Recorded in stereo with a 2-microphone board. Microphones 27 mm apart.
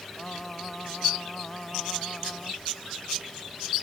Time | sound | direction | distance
0.2 | singing | 25° left (ahead or behind) | ?